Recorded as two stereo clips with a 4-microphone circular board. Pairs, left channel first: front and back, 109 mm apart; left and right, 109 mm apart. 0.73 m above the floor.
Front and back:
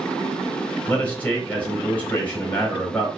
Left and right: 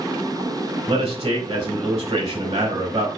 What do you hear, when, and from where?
0.9 s a man speaking: 75° right, 2 m